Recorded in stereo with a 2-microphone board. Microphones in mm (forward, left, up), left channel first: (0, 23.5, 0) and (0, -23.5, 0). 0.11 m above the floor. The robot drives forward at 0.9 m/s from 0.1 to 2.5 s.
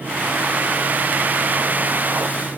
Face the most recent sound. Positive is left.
No sound to turn to.